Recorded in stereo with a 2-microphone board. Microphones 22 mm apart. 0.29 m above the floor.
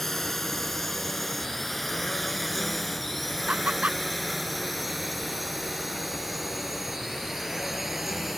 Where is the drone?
10° left (ahead or behind); by 8.4 s 10° right (ahead or behind).